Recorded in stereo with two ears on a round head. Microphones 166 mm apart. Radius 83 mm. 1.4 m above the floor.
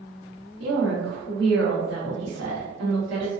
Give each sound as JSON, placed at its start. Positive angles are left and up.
{"t": 0.6, "sound": "a woman speaking", "side_deg": -80, "distance_m": 1.3}